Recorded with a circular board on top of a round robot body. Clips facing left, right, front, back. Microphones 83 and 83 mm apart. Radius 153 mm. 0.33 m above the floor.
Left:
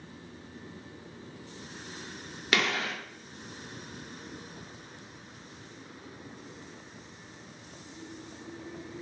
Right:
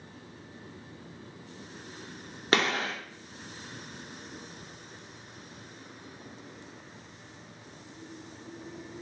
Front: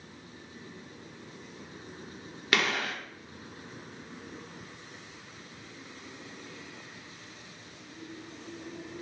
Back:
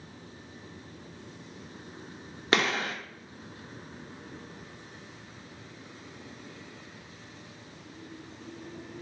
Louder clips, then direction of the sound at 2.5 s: Right 2 dB, back 2 dB; 130° right.